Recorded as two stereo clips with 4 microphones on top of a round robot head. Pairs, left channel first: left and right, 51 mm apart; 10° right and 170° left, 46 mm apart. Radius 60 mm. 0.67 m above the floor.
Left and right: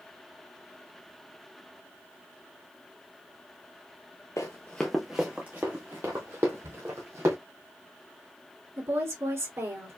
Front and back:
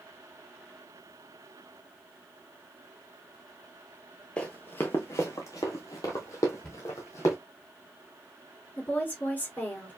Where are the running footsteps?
45° left, 0.7 m; by 7.4 s 45° right, 1.6 m.